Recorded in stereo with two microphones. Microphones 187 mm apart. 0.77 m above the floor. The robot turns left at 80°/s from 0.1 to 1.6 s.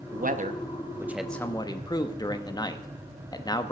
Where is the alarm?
No alarm in this recording.